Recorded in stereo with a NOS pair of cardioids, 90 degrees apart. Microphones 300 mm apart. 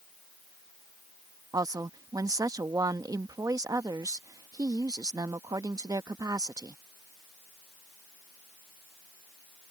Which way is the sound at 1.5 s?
10° right.